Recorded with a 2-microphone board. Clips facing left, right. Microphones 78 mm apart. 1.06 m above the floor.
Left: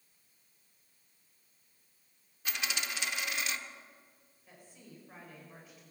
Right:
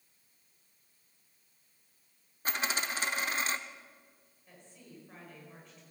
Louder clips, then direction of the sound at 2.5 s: Right 4 dB; 35° right (ahead or behind).